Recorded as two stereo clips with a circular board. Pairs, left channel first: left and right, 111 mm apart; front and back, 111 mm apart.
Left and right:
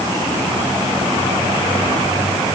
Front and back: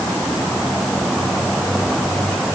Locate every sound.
Only background noise.